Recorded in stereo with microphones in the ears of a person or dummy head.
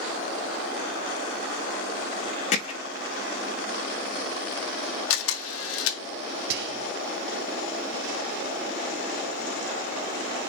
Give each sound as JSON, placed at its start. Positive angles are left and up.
{"t": 2.5, "sound": "hammering", "side_deg": 35, "distance_m": 1.8}
{"t": 5.1, "sound": "a camera shutter", "side_deg": 90, "distance_m": 1.2}
{"t": 6.5, "sound": "whispering", "side_deg": -65, "distance_m": 0.8}